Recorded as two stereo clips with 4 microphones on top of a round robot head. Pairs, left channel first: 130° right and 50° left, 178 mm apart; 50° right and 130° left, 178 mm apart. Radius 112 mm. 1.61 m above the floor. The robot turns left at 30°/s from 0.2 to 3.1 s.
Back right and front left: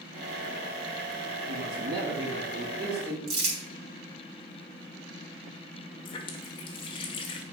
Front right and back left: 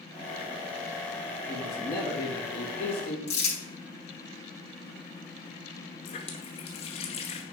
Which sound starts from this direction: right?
A running tap, at 6.0 s.